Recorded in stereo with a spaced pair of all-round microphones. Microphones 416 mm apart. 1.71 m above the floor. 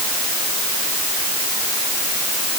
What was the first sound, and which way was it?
Only background noise.